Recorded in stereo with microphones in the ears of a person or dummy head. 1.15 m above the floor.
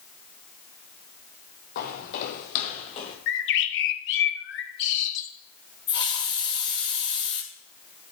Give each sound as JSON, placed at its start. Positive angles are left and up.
{"t": 1.8, "sound": "footsteps", "side_deg": 55, "distance_m": 2.0}
{"t": 3.3, "sound": "a bird", "side_deg": 60, "distance_m": 1.4}
{"t": 5.9, "sound": "a hiss", "side_deg": 25, "distance_m": 1.6}